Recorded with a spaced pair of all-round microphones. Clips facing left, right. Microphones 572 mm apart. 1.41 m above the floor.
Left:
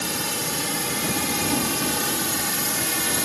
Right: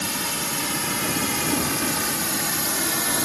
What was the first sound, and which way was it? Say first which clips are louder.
A drone: left 1 dB; 65° left (ahead or behind).